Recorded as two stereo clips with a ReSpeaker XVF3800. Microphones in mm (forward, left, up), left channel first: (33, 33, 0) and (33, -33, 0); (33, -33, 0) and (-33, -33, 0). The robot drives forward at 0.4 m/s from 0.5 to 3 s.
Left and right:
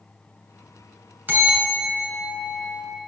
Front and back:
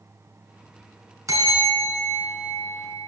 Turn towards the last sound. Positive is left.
turn(degrees=-155)